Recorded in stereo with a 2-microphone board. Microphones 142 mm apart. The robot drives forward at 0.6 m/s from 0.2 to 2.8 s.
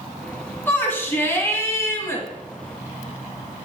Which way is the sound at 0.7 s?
15° left (ahead or behind).